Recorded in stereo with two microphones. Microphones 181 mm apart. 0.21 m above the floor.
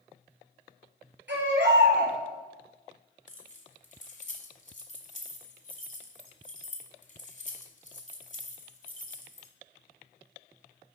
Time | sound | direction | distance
1.3 | a baby crying | 75° right (ahead or behind) | 2.5 m
3.3 | keys jangling | 45° left (ahead or behind) | 1.2 m